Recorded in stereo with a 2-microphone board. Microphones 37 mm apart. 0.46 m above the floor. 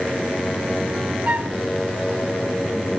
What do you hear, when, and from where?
1.2 s a flute: 45° right (ahead or behind), 1.0 m